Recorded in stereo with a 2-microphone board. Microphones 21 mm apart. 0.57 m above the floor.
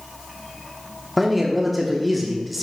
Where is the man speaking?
5° right (ahead or behind), 0.9 m.